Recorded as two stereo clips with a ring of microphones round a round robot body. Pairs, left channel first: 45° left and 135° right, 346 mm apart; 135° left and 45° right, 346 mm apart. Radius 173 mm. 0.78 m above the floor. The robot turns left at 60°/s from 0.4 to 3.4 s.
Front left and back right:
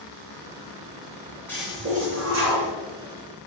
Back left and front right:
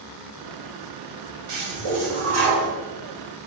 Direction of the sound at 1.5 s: 40° right.